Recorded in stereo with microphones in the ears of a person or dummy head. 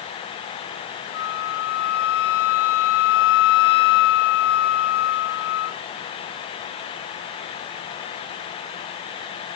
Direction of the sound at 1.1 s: 50° left (ahead or behind).